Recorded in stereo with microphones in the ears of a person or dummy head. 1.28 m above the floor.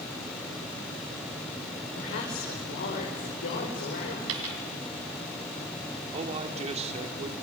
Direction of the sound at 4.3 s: 80° right.